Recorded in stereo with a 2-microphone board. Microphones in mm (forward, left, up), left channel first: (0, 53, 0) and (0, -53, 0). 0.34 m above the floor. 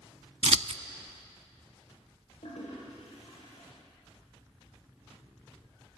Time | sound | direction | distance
0.4 | scissors | 80° right | 0.5 m
2.4 | a toilet flushing | 80° left | 8 m